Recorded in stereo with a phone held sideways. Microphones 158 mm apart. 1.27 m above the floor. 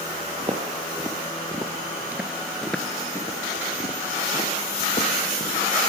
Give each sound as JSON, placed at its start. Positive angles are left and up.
{"t": 0.4, "sound": "footsteps", "side_deg": -35, "distance_m": 2.5}